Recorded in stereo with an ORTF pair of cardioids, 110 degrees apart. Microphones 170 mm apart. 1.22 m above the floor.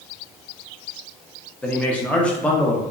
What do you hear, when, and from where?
1.6 s a man speaking: 5° left, 0.7 m